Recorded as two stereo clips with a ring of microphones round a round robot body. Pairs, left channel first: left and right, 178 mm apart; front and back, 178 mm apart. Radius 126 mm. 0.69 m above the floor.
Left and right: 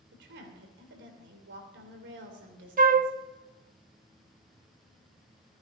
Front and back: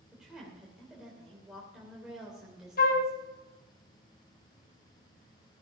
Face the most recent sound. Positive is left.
turn(degrees=-50)